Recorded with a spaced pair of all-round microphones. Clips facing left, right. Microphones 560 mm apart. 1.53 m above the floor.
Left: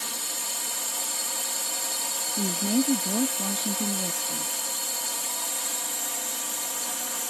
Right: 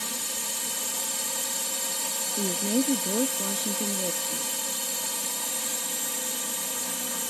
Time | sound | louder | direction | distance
0.0 | a drone | right 2 dB | 55° right (ahead or behind) | ?
2.4 | a woman speaking | left 1 dB | 20° left (ahead or behind) | ?